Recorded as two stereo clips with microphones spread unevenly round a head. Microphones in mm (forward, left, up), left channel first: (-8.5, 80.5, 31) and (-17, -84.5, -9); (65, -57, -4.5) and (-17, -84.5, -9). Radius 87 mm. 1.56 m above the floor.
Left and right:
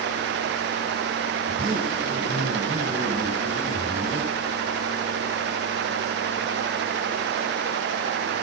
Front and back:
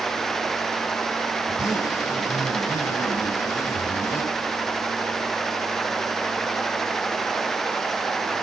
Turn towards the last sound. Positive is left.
turn(degrees=-30)